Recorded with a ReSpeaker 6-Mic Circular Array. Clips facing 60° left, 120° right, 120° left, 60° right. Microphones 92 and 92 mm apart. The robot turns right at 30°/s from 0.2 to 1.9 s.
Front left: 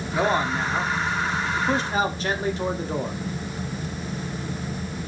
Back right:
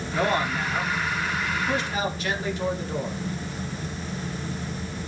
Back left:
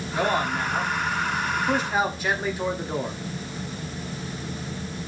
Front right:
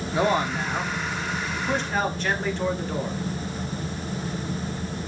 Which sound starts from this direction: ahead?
A man speaking, at 0.1 s.